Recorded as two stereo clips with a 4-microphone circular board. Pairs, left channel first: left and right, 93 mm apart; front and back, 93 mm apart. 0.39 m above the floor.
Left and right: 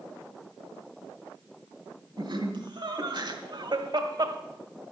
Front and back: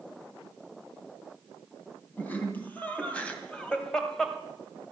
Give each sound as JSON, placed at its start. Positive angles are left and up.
{"t": 2.2, "sound": "laughter", "azimuth_deg": -70, "distance_m": 3.0}